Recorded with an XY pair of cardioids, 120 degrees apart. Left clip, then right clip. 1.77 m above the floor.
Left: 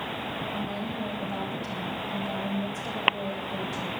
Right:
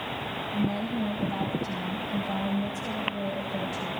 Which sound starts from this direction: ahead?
A woman speaking, at 0.5 s.